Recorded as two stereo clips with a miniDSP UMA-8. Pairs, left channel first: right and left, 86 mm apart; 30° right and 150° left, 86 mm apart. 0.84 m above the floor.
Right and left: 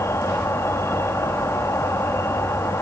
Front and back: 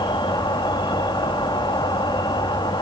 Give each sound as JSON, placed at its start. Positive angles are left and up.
{"t": 0.0, "sound": "an insect", "azimuth_deg": -35, "distance_m": 1.9}